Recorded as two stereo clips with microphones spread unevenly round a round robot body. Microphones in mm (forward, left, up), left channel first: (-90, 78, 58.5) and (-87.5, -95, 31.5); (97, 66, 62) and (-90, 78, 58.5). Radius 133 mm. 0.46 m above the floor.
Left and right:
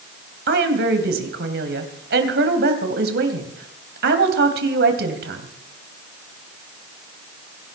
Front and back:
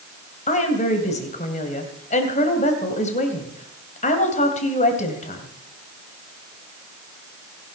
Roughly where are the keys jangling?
No keys jangling in this recording.